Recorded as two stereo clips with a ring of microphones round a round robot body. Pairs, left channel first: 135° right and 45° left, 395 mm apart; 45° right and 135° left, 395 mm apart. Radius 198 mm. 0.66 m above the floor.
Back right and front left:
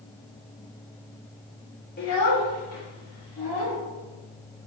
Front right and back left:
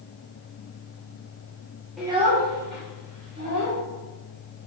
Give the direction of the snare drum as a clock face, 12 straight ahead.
No snare drum in this recording.